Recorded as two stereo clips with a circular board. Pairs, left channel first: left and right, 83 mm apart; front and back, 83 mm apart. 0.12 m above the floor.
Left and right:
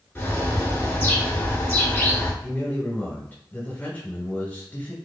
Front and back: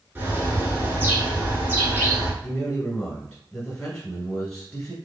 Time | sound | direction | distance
0.1 | a bird | 135° left | 1.1 m
2.4 | a man speaking | 60° left | 1.4 m